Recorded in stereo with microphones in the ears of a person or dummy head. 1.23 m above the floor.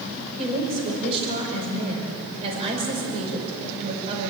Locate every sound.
0.4 s a woman speaking: 30° right (ahead or behind), 5 m